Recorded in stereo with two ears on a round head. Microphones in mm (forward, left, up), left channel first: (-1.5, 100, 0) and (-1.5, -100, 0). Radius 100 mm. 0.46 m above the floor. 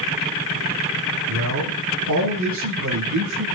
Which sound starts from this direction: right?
A man speaking, at 1.3 s.